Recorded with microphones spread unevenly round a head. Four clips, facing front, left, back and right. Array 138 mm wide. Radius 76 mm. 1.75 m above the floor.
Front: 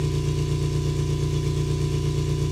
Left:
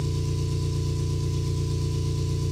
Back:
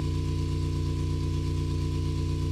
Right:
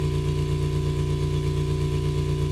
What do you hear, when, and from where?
0.0 s an engine running: 40° right, 4 m